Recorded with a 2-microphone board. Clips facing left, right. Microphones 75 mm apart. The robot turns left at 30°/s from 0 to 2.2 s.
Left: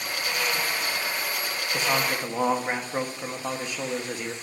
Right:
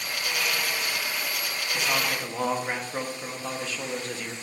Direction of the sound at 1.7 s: 30° left (ahead or behind).